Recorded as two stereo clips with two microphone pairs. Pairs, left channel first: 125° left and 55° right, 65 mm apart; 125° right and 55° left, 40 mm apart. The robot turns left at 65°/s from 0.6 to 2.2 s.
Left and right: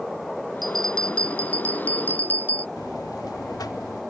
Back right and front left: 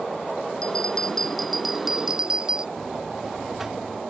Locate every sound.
0.6 s a bell: 150° right; by 2.7 s 110° left
2.8 s a buzzer: 135° left